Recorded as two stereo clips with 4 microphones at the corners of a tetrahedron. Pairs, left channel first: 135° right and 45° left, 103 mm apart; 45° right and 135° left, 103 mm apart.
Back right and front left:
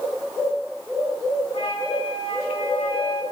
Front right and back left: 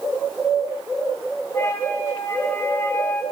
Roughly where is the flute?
Right.